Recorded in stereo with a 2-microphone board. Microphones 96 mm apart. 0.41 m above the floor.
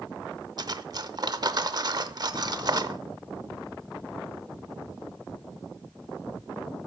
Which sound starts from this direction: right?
Cutlery clinking, at 0.6 s.